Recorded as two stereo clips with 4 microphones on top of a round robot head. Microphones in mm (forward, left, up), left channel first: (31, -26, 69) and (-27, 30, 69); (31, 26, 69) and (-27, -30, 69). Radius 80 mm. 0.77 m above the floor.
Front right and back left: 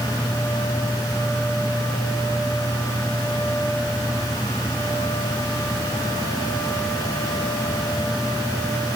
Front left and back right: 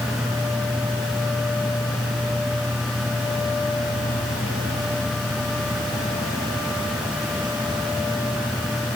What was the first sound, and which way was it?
Only background noise.